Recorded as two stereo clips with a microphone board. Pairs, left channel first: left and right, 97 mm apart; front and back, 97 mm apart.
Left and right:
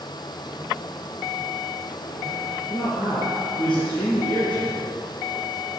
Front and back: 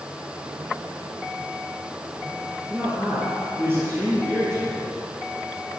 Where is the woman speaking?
110° left, 3.5 m.